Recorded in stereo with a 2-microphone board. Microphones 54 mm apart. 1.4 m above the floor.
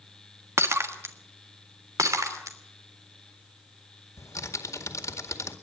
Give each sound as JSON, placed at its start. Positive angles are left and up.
{"t": 0.6, "sound": "breaking glass", "side_deg": -55, "distance_m": 1.5}
{"t": 2.0, "sound": "breaking glass", "side_deg": -75, "distance_m": 2.5}
{"t": 4.2, "sound": "typing on a keyboard", "side_deg": 75, "distance_m": 2.0}